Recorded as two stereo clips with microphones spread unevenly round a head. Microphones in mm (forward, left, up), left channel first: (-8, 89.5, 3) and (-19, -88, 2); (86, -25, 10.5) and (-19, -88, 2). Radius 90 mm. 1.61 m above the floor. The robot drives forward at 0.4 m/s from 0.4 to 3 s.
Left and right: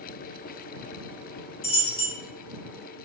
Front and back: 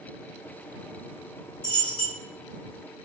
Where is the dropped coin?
85° left, 1.2 m; by 2.1 s 105° left, 1.2 m.